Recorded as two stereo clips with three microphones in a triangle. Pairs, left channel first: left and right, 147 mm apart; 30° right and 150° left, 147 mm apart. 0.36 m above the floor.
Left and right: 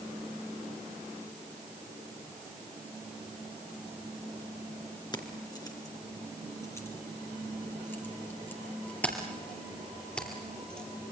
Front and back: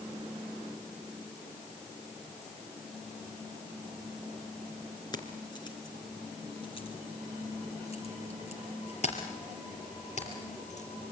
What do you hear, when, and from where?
5.1 s keys jangling: 30° left, 3 m; by 10.9 s 5° left, 5.5 m